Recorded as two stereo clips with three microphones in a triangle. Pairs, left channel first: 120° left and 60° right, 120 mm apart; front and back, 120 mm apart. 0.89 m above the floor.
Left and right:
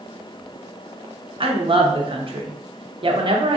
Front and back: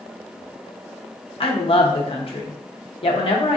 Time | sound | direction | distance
1.4 | a woman speaking | 30° right | 0.8 m